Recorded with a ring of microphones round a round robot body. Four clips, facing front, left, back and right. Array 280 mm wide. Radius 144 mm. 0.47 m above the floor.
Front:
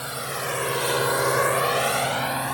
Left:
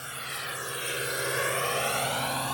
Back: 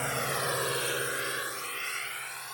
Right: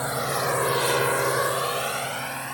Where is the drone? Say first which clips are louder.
Right 13 dB, front 1 dB; 100° right; by 2.5 s 15° left.